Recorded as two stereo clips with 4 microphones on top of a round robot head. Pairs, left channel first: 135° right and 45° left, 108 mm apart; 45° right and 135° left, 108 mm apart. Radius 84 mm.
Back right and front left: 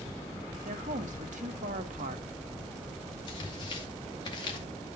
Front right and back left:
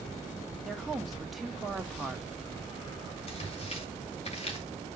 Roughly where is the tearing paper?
Right.